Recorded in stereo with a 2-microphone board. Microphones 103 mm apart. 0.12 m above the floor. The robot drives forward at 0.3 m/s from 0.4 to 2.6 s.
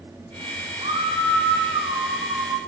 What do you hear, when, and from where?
0.8 s a scream: 65° right (ahead or behind), 4 m; by 2.6 s 60° right (ahead or behind), 4.5 m